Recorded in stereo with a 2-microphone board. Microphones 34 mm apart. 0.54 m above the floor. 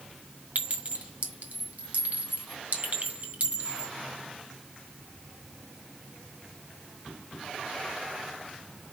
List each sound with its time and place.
0.6 s a clink: 50° right (ahead or behind), 2.5 m